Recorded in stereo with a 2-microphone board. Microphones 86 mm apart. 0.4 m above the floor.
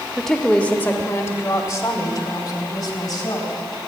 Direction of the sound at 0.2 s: Centre (ahead or behind).